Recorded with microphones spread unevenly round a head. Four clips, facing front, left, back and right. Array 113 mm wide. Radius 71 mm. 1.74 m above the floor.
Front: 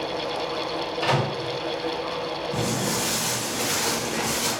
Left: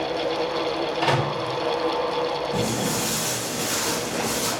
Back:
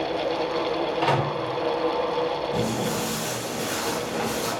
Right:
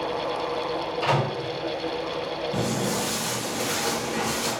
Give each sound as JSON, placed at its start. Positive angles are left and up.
{"t": 1.0, "sound": "a microwave", "azimuth_deg": 145, "distance_m": 1.1}
{"t": 2.5, "sound": "footsteps", "azimuth_deg": 50, "distance_m": 1.8}